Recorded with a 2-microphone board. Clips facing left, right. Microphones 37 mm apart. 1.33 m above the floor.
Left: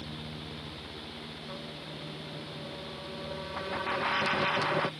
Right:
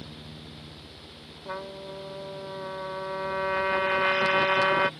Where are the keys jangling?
No keys jangling in this recording.